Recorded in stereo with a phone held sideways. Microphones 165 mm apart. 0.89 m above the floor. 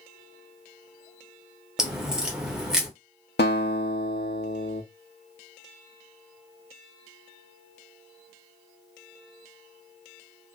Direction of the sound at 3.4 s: 80° left.